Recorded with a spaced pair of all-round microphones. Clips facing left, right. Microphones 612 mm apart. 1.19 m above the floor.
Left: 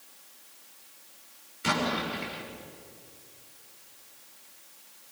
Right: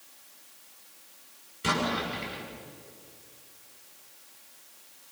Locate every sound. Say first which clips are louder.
1.6 s an explosion: even; 55° right (ahead or behind), 7.5 m